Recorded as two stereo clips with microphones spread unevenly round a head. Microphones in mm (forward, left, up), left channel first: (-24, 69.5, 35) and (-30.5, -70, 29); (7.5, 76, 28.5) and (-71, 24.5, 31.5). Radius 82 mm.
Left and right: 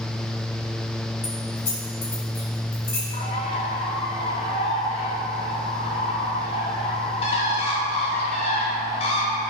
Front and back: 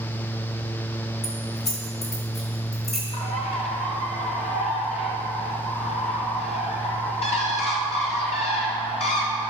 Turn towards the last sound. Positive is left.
turn(degrees=35)